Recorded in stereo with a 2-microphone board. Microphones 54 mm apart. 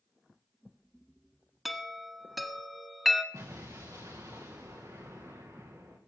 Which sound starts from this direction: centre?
A chime, at 1.6 s.